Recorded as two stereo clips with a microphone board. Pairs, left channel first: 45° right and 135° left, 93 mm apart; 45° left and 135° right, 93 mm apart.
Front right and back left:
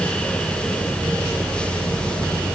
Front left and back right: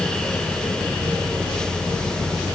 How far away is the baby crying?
No baby crying in this recording.